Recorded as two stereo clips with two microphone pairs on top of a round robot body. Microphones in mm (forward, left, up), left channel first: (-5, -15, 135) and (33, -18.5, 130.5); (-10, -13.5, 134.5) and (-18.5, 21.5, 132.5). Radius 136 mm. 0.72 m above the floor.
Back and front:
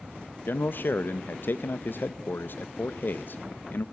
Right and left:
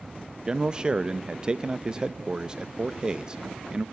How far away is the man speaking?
About 0.8 m.